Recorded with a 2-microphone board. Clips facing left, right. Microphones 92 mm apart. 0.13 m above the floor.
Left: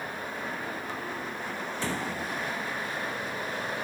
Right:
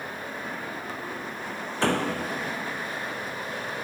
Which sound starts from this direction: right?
A door slam, at 1.8 s.